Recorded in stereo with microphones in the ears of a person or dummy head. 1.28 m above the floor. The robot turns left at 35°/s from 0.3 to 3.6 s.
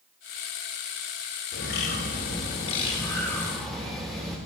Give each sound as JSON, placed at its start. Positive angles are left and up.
{"t": 1.5, "sound": "a bird", "azimuth_deg": 75, "distance_m": 4.0}